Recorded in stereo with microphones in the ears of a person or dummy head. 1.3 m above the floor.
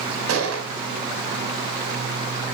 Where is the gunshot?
90° right, 5 m.